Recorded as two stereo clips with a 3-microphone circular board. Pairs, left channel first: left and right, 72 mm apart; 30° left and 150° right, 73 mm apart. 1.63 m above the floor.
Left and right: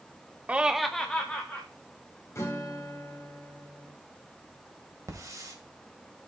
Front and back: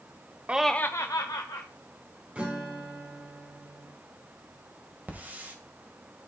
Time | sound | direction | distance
0.5 | laughter | 120° right | 0.5 m
2.4 | a guitar | 140° left | 2.5 m
5.1 | a hiss | 90° right | 1.9 m